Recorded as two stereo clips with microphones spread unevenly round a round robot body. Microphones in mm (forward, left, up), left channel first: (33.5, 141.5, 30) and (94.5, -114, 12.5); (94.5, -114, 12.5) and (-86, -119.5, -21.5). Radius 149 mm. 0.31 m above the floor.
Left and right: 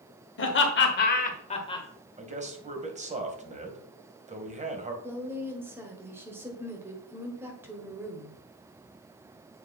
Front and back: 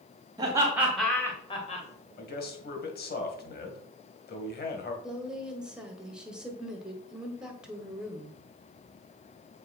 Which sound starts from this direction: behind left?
Laughter, at 0.4 s.